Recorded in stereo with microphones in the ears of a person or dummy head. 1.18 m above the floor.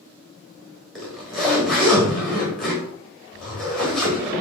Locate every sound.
0.9 s a zipper: 5° left (ahead or behind), 1.3 m